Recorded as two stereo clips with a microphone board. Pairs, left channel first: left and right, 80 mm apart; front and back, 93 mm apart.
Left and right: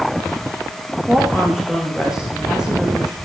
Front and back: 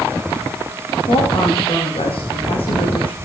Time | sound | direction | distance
1.1 | a woman speaking | 10° right | 8.5 m